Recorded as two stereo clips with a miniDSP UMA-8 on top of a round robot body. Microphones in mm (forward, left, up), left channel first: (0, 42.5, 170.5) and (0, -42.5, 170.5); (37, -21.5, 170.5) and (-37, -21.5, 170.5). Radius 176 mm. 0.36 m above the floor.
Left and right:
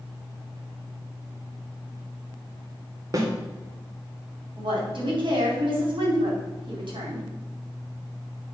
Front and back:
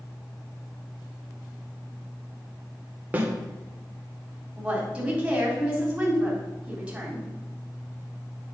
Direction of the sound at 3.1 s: 120° right.